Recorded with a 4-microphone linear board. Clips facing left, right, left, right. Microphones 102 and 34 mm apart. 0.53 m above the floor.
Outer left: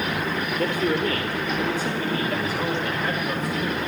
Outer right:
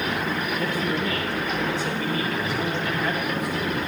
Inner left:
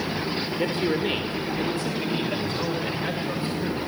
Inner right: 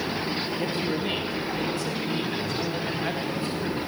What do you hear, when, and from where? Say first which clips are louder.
0.6 s a man speaking: outer left 6 dB, inner left 6 dB; 50° left (ahead or behind), 1.9 m; by 3.8 s 30° left (ahead or behind), 3 m